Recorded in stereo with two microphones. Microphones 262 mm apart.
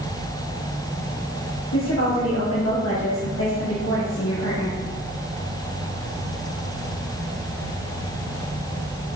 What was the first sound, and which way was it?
A woman speaking, 70° left (ahead or behind).